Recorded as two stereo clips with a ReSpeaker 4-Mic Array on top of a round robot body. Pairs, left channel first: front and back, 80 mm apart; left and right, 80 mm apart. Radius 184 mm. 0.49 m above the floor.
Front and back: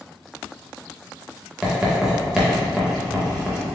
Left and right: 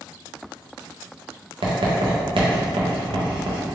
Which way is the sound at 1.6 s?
100° right.